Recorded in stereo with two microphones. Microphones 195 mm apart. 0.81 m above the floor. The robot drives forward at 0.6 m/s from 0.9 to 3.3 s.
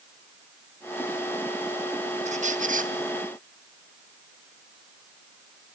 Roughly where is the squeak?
Right.